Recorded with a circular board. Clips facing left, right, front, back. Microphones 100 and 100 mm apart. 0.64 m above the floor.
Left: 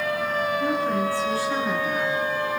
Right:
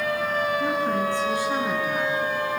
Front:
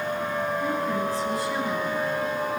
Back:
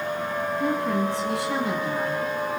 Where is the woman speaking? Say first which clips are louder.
Even, back 2 dB; 160° right, 9 m; by 2.3 s 170° right, 8 m.